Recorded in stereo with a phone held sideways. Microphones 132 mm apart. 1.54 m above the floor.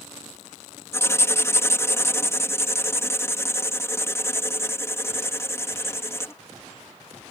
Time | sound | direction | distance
0.9 | writing | 20° left (ahead or behind) | ?